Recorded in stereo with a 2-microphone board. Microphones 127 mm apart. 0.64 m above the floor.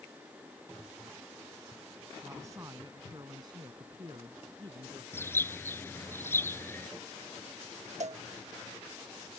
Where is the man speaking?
20° right (ahead or behind); by 5.0 s 45° right (ahead or behind).